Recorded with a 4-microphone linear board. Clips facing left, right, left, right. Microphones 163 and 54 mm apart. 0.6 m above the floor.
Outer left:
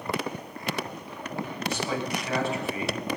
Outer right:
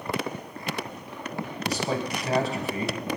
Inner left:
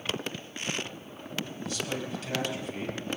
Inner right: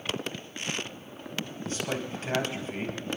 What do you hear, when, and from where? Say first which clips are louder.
1.6 s a man speaking: outer right 2 dB, inner right 3 dB; 40° right (ahead or behind), 3.5 m